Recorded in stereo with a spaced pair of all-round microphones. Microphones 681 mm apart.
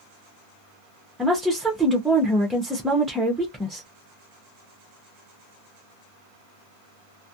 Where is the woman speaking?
Centre (ahead or behind), 0.5 m.